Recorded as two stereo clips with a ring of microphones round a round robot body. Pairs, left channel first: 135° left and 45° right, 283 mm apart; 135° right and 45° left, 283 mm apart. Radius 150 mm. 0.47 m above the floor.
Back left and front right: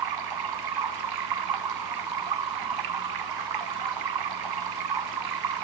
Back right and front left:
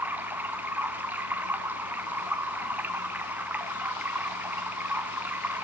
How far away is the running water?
About 1.5 m.